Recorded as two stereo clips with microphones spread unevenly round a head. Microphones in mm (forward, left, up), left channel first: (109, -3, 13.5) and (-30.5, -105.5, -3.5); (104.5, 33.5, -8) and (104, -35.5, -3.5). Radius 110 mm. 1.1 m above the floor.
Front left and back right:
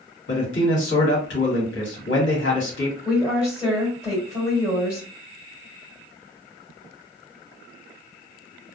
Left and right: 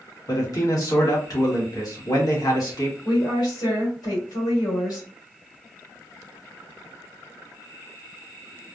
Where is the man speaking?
75° left, 1.7 m.